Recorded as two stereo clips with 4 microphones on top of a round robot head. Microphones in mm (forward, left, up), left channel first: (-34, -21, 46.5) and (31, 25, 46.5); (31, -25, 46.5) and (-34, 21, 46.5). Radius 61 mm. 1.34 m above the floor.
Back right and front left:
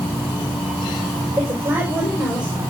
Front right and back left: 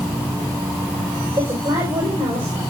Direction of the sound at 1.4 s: 105° left.